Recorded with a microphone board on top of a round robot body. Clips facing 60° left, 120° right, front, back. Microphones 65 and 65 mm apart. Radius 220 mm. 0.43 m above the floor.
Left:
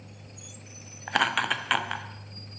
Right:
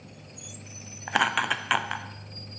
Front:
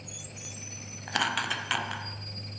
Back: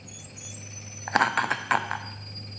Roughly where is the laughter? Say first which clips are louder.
Right 1 dB, back 6 dB; behind.